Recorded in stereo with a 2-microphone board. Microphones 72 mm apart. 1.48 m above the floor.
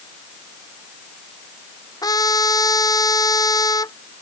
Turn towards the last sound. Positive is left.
turn(degrees=60)  # may be behind; listen again after turning